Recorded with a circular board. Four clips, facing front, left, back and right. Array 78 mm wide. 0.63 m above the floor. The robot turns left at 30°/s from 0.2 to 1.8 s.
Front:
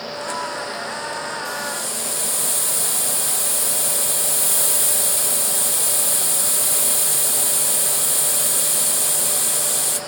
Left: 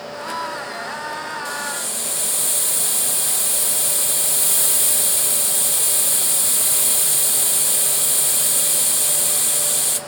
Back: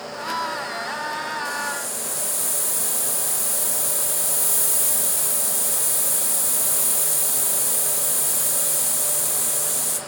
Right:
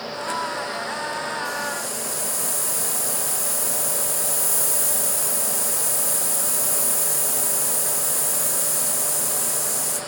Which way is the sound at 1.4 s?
80° left.